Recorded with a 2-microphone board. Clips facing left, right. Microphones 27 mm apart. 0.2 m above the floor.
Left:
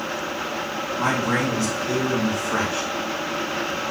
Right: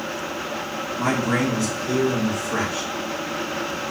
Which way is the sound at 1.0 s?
25° left (ahead or behind).